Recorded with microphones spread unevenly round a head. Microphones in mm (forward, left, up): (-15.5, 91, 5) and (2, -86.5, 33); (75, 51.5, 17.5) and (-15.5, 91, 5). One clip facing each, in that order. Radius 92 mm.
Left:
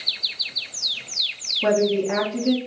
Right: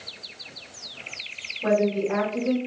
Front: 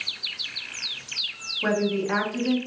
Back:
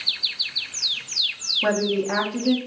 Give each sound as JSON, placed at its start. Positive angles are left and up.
{"t": 1.6, "sound": "a woman speaking", "azimuth_deg": 80, "distance_m": 0.9}